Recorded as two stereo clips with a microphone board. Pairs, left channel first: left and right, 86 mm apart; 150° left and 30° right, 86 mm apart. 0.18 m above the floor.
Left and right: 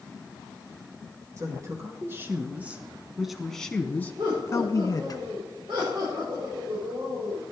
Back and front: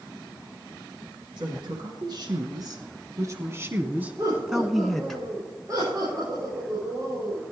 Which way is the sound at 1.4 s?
45° right.